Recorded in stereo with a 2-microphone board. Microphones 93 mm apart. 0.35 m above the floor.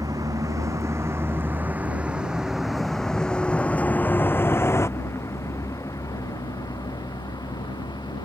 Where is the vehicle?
45° right (ahead or behind); by 8.2 s 55° left (ahead or behind).